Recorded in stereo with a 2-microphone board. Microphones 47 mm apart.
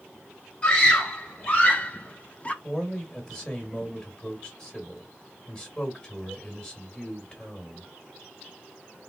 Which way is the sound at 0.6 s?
30° left (ahead or behind).